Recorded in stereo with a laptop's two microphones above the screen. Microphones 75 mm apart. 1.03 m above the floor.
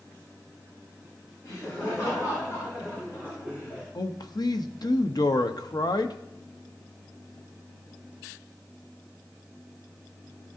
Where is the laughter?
50° left (ahead or behind), 4.5 m; by 3.9 s 20° left (ahead or behind), 5 m.